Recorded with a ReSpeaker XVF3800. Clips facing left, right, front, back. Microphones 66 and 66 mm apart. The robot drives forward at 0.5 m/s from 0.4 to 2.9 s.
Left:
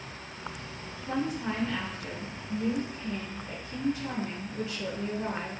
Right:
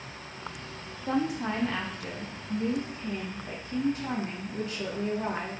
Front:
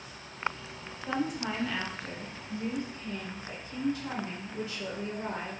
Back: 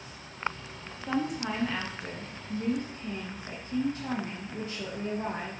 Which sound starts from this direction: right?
A woman speaking, at 1.1 s.